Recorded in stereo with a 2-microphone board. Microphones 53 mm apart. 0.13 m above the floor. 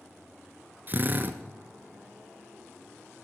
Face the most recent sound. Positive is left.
turn(degrees=-35)  # may be behind; listen again after turning